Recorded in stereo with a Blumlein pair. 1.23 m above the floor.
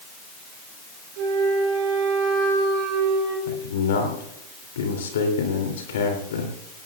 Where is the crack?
No crack in this recording.